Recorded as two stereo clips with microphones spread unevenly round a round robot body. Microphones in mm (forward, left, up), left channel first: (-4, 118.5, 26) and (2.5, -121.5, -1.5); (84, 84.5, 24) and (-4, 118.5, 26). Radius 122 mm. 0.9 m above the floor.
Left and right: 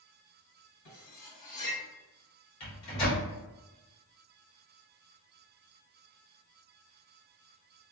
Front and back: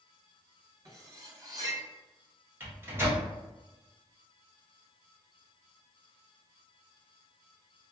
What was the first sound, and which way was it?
Cutlery clinking, 105° left.